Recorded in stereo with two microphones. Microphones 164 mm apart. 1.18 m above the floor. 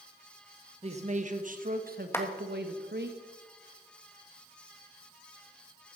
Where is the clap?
15° left (ahead or behind), 1.6 m.